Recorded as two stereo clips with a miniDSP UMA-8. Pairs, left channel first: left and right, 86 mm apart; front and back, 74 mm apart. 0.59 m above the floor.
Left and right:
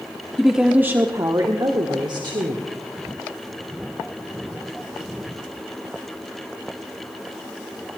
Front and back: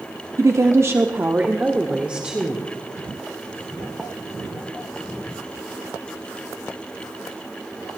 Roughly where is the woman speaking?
Behind.